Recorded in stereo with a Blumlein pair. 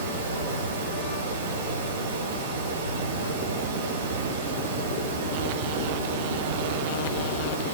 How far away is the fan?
About 7 m.